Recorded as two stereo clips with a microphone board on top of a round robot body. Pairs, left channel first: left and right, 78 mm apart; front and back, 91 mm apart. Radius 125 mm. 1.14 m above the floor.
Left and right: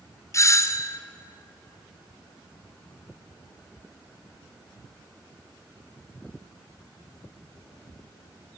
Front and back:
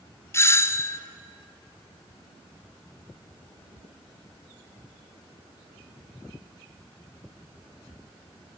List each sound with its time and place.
0.3 s a doorbell: 55° left, 0.6 m